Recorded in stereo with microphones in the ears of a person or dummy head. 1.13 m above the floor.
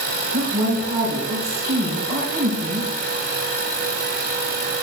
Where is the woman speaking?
10° right (ahead or behind), 3.5 m.